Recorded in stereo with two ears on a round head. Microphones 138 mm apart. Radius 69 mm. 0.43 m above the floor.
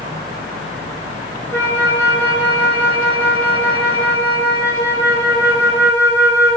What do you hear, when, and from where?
1.5 s a flute: 10° left (ahead or behind), 3.5 m